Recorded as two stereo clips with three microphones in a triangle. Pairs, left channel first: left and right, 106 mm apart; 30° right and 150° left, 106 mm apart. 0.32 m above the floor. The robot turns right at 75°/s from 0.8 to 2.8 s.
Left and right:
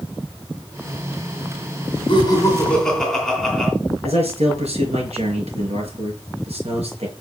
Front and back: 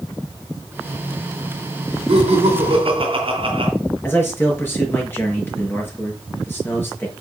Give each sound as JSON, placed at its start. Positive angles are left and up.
{"t": 2.1, "sound": "laughter", "azimuth_deg": 125, "distance_m": 3.0}
{"t": 4.0, "sound": "a man speaking", "azimuth_deg": -100, "distance_m": 5.0}